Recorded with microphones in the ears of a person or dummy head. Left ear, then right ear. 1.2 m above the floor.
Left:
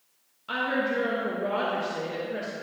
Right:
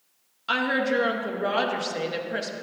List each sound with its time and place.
0.5 s a woman speaking: 30° right (ahead or behind), 0.7 m